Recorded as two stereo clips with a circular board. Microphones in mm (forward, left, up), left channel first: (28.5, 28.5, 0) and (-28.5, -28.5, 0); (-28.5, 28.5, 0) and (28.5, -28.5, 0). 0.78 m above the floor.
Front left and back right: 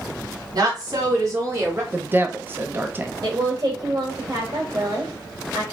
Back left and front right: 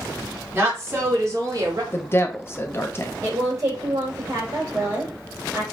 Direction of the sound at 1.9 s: 175° left.